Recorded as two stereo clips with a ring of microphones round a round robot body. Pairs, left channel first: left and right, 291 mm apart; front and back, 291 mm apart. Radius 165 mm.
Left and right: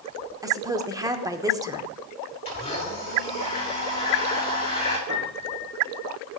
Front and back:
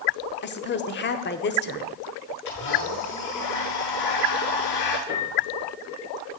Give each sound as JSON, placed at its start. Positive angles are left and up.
{"t": 0.4, "sound": "a woman speaking", "azimuth_deg": -20, "distance_m": 1.0}
{"t": 2.5, "sound": "a blender", "azimuth_deg": 20, "distance_m": 6.5}
{"t": 5.1, "sound": "a piano", "azimuth_deg": -25, "distance_m": 6.0}